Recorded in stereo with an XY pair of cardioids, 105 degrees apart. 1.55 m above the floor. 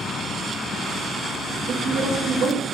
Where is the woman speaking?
60° right, 0.5 m.